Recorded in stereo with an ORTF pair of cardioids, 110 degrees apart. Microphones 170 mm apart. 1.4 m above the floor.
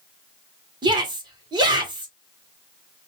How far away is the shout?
About 1.7 m.